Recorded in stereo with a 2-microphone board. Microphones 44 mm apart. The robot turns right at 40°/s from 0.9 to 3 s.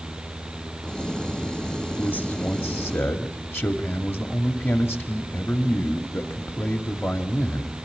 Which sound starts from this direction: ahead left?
A man speaking, at 2.0 s.